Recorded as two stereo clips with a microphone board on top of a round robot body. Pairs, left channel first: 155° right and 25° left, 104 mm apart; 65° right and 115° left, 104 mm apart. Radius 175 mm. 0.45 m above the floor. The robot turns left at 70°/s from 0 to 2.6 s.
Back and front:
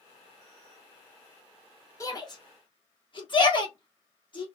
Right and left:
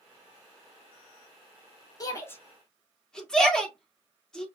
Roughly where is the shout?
Right.